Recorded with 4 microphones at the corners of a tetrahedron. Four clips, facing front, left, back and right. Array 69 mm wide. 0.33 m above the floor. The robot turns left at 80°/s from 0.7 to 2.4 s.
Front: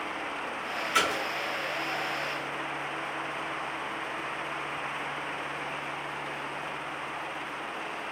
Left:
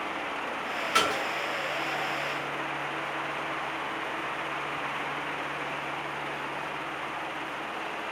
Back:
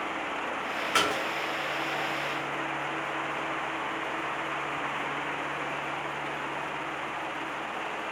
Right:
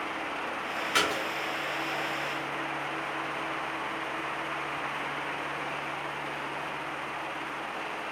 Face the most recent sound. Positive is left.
turn(degrees=50)